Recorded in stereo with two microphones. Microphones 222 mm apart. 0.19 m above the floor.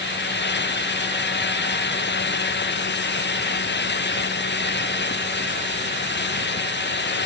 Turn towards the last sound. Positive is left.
No sound to turn to.